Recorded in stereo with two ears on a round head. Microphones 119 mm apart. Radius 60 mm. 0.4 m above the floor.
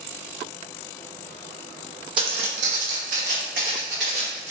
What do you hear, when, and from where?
2.2 s footsteps: 35° right (ahead or behind), 0.7 m; by 4.5 s 50° right (ahead or behind), 1.6 m